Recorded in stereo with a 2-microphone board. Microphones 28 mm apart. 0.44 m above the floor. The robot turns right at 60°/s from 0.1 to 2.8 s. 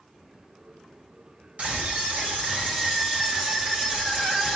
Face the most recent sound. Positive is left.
turn(degrees=-40)